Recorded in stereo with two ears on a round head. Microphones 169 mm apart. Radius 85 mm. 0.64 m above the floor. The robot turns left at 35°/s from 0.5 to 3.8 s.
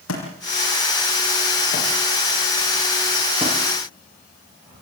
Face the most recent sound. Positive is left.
turn(degrees=-35)  # may be behind; listen again after turning